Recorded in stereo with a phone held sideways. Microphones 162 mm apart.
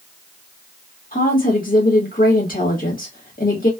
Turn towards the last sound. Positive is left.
turn(degrees=60)  # may be behind; listen again after turning